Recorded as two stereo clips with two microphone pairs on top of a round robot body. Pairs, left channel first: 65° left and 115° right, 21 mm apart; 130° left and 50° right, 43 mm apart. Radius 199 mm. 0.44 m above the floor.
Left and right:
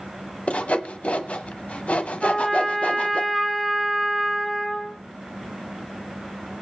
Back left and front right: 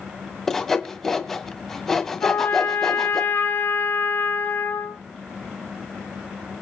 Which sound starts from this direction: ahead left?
Sawing, at 0.5 s.